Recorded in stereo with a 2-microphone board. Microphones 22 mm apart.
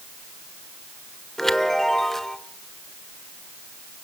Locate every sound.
1.4 s a chime: 15° left (ahead or behind), 1.1 m